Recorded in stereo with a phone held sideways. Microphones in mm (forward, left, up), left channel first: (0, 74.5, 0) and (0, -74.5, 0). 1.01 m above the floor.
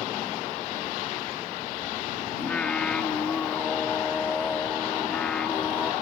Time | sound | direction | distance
2.4 | singing | 10° left (ahead or behind) | ?